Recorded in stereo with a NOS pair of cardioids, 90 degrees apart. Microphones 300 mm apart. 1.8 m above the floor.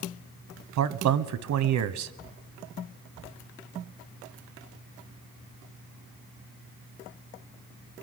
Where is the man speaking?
65° right, 1.2 m.